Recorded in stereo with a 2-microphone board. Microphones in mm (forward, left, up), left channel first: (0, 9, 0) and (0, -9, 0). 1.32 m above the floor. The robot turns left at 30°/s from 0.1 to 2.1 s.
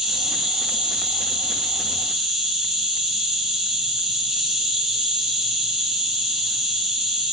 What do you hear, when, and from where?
0.0 s an insect: 55° right, 1.6 m; by 7.3 s 115° right, 1.6 m